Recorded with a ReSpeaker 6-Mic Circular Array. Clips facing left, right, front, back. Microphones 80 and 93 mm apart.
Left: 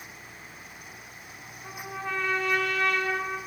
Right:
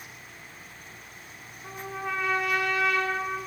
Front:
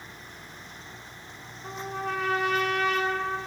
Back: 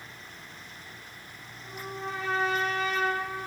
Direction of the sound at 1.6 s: 5° right.